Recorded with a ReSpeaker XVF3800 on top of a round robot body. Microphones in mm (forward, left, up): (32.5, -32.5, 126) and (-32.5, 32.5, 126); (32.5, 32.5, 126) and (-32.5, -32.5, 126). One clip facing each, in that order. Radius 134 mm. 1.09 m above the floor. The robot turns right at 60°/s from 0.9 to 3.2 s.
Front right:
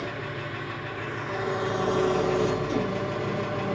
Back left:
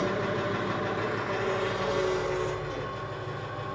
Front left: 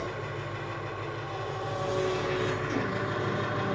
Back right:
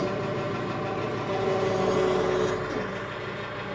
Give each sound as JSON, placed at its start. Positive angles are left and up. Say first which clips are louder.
{"t": 0.0, "sound": "an engine running", "louder": "back left 5 dB, back right 7 dB", "azimuth_deg": -160, "distance_m": 1.2}